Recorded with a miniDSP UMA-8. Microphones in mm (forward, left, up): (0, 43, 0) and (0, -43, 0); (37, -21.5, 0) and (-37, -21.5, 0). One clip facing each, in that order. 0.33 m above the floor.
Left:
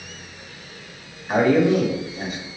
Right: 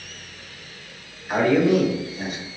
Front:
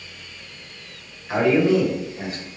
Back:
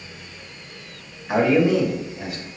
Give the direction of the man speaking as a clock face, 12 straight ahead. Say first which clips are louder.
Left 1 dB, even; 8 o'clock.